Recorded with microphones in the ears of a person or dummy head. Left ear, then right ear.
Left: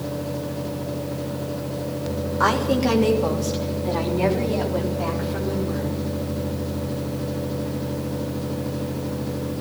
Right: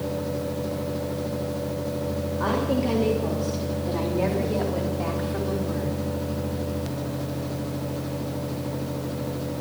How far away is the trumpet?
No trumpet in this recording.